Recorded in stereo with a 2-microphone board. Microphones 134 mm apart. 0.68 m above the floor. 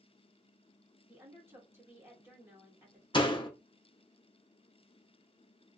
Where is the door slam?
40° left (ahead or behind), 0.8 m.